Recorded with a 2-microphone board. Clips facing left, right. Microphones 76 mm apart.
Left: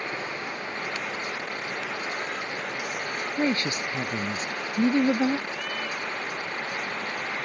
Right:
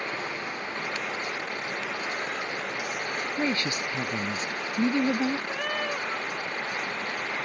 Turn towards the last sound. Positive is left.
turn(degrees=-50)  # may be behind; listen again after turning